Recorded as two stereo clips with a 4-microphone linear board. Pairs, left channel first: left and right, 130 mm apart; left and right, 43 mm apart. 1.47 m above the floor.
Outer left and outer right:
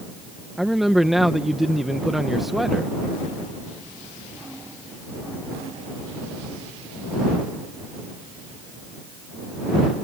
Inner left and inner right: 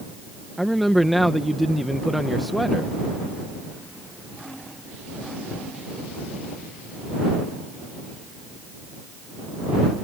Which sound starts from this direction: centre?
A man speaking, at 0.6 s.